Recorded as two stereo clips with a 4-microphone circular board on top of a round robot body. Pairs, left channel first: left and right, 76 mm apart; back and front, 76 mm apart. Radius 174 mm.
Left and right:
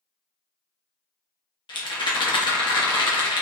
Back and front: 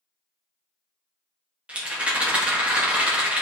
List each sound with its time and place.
1.7 s a rattle: 75° left, 1.3 m